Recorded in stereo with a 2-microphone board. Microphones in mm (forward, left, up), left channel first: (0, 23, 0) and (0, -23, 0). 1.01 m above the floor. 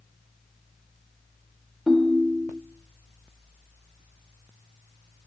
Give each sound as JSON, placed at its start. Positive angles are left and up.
{"t": 1.9, "sound": "a ringtone", "side_deg": -10, "distance_m": 1.1}